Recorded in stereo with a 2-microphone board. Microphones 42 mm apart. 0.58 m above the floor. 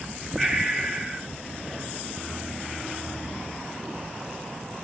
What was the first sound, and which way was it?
Breathing, 5° right (ahead or behind).